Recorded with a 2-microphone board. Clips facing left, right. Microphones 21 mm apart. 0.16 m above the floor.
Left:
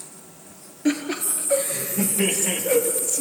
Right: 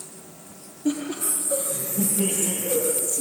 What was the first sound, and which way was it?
Laughter, 65° left (ahead or behind).